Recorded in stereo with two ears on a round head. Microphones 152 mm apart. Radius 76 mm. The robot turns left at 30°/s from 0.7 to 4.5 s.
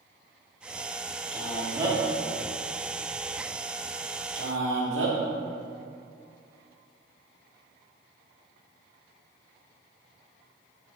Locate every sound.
1.3 s a man speaking: centre (ahead or behind), 2 m; by 5.2 s 80° right, 2 m